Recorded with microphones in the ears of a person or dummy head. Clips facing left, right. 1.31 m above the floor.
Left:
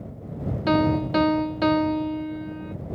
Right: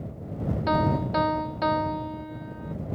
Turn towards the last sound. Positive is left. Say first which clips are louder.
# left 5 dB
turn(degrees=45)  # may be behind; listen again after turning